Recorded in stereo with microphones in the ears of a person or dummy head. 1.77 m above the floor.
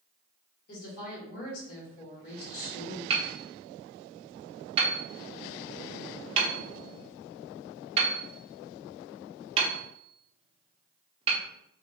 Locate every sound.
0.7 s a woman speaking: 55° left (ahead or behind), 2.0 m
3.1 s hammering: 35° right (ahead or behind), 0.9 m